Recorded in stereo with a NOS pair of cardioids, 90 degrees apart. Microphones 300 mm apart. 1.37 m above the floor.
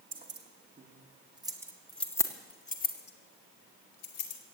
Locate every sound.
0.1 s keys jangling: 40° right, 2 m; by 4.4 s 60° left, 2.5 m